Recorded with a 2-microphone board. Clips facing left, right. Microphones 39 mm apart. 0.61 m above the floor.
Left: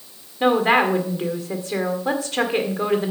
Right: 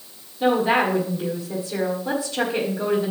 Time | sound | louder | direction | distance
0.4 | a woman speaking | left 2 dB | 55° left (ahead or behind) | 1.8 m